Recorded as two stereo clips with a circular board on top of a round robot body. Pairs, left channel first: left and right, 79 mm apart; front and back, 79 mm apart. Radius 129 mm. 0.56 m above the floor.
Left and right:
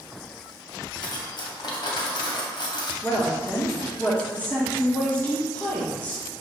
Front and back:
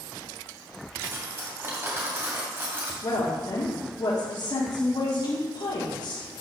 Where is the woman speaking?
25° left, 1.9 m.